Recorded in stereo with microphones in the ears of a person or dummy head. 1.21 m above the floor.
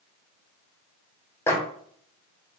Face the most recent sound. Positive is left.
turn(degrees=15)  # may be behind; listen again after turning